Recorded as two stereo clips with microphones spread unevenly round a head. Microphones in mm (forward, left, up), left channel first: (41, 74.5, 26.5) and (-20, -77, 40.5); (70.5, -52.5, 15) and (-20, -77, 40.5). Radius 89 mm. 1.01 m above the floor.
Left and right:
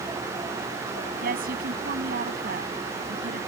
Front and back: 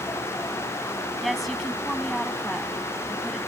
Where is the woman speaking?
75° right.